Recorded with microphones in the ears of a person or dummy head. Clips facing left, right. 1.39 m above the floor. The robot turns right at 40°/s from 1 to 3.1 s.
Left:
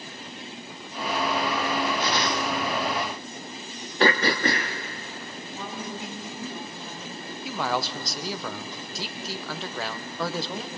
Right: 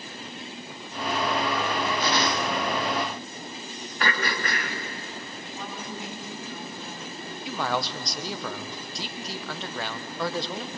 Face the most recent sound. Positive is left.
turn(degrees=5)  # may be behind; listen again after turning